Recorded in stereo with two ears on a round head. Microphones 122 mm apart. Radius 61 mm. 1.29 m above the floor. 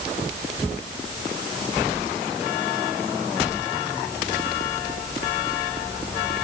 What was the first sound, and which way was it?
Only background noise.